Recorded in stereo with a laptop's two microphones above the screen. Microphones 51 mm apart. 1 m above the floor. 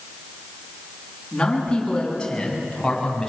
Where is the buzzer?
No buzzer in this recording.